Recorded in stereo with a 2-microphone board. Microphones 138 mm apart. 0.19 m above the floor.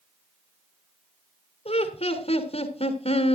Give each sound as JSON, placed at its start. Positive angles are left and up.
{"t": 1.6, "sound": "laughter", "side_deg": 50, "distance_m": 2.0}